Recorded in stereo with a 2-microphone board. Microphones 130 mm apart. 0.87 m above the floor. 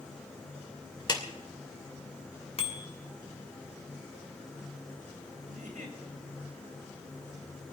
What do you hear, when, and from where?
1.1 s a clap: 35° left (ahead or behind), 2.5 m
2.6 s a bicycle bell: 50° left (ahead or behind), 2.5 m
5.5 s a giggle: 85° right, 3.5 m